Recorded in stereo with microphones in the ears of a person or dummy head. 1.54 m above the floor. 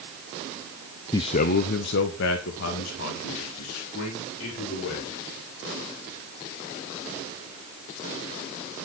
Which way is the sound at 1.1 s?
20° left (ahead or behind).